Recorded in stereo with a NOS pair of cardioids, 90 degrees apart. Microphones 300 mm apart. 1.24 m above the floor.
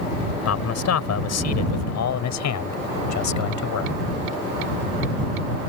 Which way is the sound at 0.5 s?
55° left.